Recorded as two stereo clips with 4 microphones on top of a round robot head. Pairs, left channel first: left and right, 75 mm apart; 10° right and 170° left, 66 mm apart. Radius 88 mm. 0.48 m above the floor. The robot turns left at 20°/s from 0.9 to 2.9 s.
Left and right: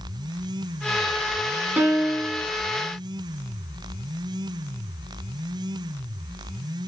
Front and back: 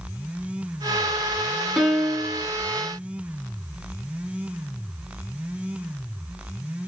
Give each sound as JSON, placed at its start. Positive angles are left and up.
{"t": 1.8, "sound": "a piano", "azimuth_deg": -95, "distance_m": 1.0}